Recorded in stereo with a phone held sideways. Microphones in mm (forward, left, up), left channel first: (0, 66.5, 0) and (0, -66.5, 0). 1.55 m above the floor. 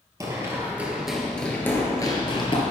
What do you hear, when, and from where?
0.2 s running footsteps: 25° right (ahead or behind), 2.0 m; by 2.6 s 40° left (ahead or behind), 1.9 m